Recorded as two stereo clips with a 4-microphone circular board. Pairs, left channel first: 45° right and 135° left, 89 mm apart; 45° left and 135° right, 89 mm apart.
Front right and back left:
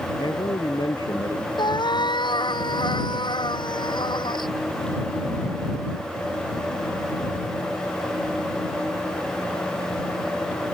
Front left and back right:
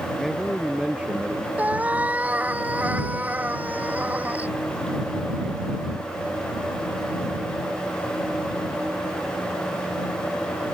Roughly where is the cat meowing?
Ahead right.